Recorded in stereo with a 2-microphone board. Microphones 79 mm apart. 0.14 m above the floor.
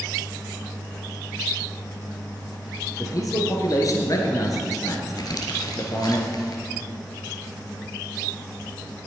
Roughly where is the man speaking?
Left.